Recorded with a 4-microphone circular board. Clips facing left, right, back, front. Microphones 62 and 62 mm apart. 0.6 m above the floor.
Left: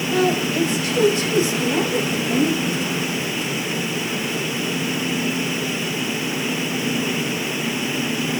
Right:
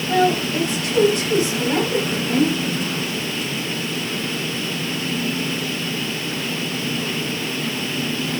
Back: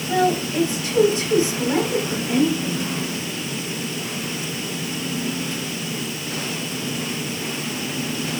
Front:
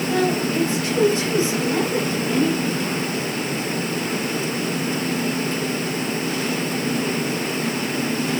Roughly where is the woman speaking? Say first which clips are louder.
Right 2 dB, back 2 dB; behind right.